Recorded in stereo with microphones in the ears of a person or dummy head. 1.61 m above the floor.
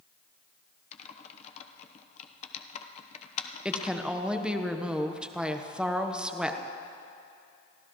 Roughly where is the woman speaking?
Centre.